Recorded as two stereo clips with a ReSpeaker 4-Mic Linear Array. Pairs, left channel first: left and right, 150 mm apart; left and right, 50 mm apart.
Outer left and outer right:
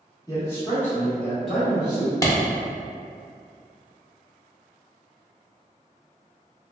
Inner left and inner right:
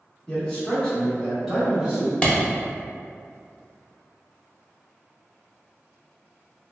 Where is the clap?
20° left (ahead or behind), 0.6 m.